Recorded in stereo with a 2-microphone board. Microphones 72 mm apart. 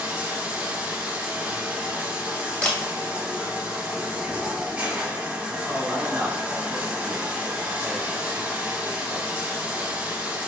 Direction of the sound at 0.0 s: 20° right (ahead or behind).